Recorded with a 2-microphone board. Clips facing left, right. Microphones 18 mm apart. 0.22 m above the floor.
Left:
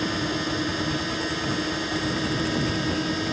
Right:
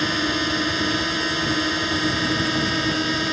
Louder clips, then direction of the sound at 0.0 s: Right 5 dB; 25° right (ahead or behind).